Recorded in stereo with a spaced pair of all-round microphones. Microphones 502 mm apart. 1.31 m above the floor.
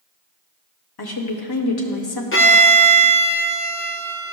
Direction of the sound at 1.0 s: 50° left (ahead or behind).